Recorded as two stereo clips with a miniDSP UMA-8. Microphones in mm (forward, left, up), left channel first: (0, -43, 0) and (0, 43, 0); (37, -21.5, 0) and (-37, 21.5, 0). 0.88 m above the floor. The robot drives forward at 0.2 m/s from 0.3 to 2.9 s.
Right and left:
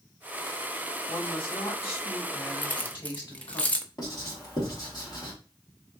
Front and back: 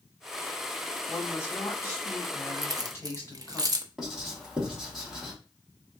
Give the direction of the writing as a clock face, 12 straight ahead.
4 o'clock.